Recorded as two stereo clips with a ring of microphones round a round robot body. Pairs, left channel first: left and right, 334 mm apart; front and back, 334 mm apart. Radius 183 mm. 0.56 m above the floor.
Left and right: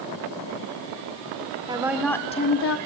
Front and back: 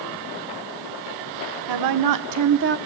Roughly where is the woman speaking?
Behind.